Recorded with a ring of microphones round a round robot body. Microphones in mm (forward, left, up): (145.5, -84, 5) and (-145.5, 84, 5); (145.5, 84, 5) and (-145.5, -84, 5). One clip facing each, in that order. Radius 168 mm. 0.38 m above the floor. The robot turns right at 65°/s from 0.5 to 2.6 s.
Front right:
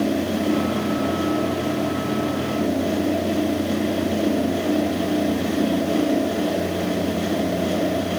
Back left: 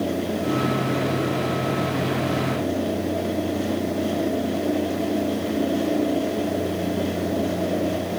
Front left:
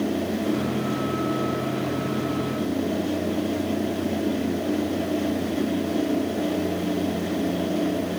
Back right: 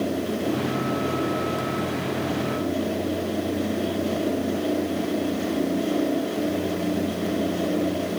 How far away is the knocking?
I don't hear knocking.